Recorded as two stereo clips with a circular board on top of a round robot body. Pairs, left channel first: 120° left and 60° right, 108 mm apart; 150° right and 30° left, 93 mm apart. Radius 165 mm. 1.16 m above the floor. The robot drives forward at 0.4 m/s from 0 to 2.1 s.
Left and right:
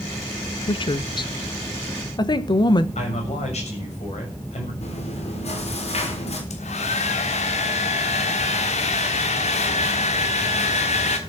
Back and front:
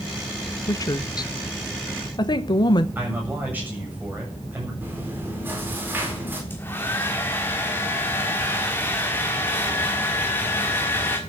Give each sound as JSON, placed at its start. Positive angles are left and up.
{"t": 0.7, "sound": "a woman speaking", "azimuth_deg": 160, "distance_m": 0.8}
{"t": 3.0, "sound": "a man speaking", "azimuth_deg": 100, "distance_m": 8.0}
{"t": 4.8, "sound": "chewing", "azimuth_deg": 100, "distance_m": 5.0}
{"t": 6.5, "sound": "a hair dryer", "azimuth_deg": 140, "distance_m": 1.4}